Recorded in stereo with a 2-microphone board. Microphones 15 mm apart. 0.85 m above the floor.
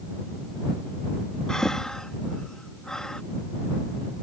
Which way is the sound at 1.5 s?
40° left (ahead or behind).